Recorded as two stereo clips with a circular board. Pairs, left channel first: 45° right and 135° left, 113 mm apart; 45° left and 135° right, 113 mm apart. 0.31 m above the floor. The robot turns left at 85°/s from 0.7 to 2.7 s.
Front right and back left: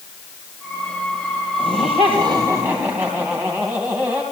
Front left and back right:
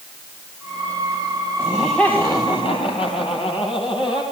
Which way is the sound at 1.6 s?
160° left.